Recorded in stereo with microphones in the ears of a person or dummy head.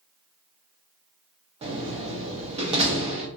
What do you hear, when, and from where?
1.6 s a door slam: 30° right (ahead or behind), 0.6 m